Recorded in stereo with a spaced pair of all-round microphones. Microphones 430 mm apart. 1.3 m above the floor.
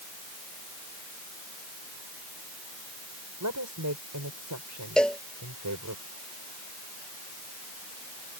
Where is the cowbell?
Centre (ahead or behind).